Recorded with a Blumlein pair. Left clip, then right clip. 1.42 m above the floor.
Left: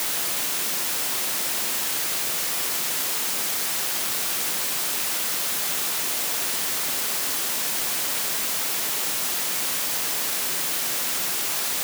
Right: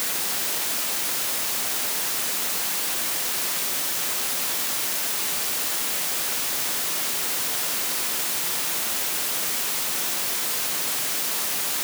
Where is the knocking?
No knocking in this recording.